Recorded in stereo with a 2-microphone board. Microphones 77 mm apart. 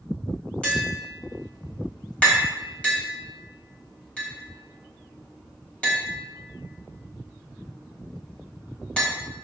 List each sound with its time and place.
0.6 s tapping: 15° left (ahead or behind), 3.5 m